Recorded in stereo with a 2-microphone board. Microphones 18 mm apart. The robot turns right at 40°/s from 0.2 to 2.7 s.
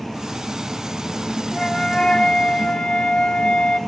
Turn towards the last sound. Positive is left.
turn(degrees=80)